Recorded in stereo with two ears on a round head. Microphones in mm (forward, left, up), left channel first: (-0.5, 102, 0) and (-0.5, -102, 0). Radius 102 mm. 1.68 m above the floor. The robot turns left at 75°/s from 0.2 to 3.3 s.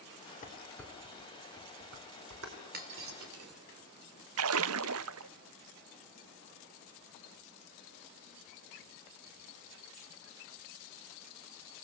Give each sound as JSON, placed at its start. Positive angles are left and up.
{"t": 0.4, "sound": "dishes clattering", "side_deg": 35, "distance_m": 4.0}
{"t": 2.7, "sound": "breaking glass", "side_deg": -45, "distance_m": 3.0}
{"t": 4.4, "sound": "a splash", "side_deg": -65, "distance_m": 0.5}